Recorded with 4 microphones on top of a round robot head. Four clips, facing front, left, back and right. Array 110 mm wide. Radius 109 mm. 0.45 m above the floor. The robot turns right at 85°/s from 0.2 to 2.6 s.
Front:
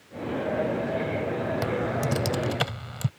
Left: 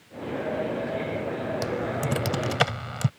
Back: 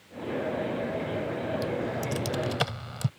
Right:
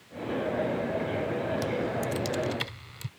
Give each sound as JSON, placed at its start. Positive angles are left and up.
{"t": 1.6, "sound": "typing on a keyboard", "azimuth_deg": 15}